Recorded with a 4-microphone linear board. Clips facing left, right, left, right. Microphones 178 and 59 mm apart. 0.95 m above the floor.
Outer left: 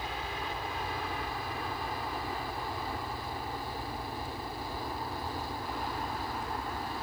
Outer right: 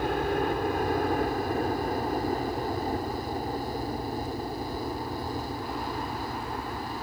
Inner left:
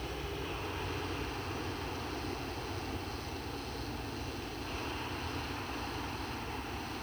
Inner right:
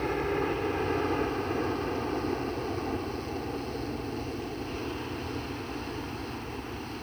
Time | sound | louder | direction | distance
0.0 | a helicopter | outer right 12 dB, inner right 12 dB | 50° right (ahead or behind) | ?